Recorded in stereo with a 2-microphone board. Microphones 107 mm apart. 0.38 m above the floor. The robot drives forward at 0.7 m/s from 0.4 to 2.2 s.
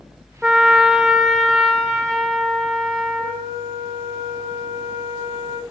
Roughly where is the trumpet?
Centre.